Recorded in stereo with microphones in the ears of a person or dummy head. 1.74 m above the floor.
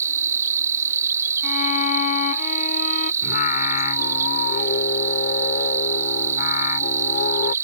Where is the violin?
50° left (ahead or behind).